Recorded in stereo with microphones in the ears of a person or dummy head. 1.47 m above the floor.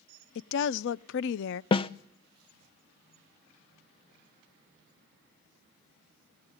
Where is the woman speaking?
65° left (ahead or behind), 0.5 m.